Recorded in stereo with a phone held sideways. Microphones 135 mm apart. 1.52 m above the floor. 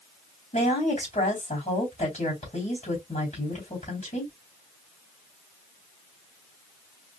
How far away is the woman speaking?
About 3 m.